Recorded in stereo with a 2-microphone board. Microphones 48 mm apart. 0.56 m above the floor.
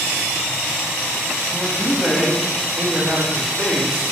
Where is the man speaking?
5° right (ahead or behind), 1.3 m; by 3.9 s 15° right (ahead or behind), 2.5 m.